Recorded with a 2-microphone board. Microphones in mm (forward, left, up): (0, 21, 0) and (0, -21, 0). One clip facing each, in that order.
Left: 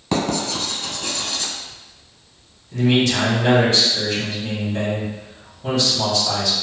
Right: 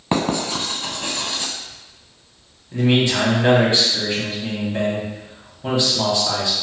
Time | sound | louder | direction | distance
0.1 | writing | right 1 dB | 30° right (ahead or behind) | 0.6 m
2.7 | a man speaking | even | 25° right (ahead or behind) | 1.0 m